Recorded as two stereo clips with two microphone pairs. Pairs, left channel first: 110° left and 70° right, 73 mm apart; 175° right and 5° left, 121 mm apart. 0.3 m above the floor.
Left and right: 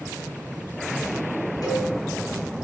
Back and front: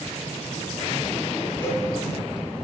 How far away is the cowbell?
About 3 m.